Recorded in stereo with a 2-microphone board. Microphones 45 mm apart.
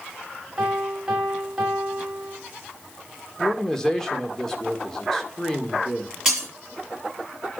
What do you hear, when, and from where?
0.6 s a piano: 20° right (ahead or behind), 4.5 m
3.4 s a man speaking: 10° left (ahead or behind), 1.9 m
6.2 s breaking glass: 10° right (ahead or behind), 6.5 m